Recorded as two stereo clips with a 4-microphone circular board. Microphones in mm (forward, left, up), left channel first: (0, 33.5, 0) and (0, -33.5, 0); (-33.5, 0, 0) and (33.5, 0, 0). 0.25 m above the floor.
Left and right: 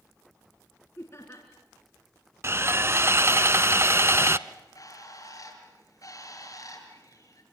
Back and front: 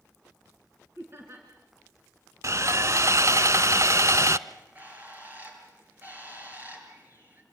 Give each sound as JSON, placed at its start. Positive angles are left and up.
{"t": 1.0, "sound": "laughter", "azimuth_deg": 50, "distance_m": 3.0}
{"t": 2.4, "sound": "sawing", "azimuth_deg": -40, "distance_m": 0.7}
{"t": 4.5, "sound": "a bird", "azimuth_deg": 60, "distance_m": 5.5}